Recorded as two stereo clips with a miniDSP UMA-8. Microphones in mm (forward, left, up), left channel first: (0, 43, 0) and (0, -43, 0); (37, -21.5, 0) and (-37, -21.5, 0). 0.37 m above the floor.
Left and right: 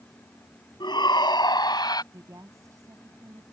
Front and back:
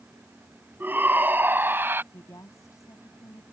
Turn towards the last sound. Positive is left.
turn(degrees=-40)